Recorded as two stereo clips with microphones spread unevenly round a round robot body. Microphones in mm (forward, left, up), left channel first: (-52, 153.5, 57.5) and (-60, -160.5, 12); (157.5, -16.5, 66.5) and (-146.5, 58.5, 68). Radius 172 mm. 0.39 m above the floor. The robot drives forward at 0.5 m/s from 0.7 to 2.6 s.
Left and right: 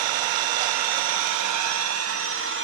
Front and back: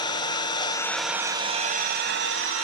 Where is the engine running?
90° right, 0.7 m; by 2.6 s 145° right, 1.2 m.